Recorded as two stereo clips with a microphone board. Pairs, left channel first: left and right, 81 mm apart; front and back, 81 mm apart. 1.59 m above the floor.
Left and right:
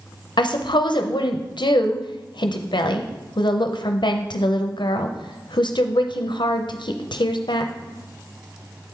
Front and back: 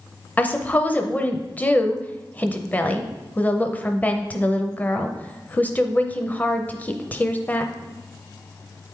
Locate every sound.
0.4 s a woman speaking: 70° left, 0.6 m